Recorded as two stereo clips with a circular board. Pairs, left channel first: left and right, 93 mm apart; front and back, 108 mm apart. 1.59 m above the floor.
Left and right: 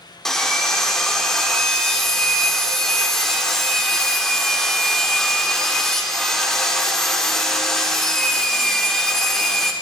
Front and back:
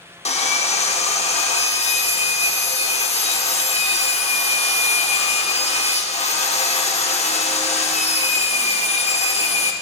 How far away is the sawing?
About 0.7 m.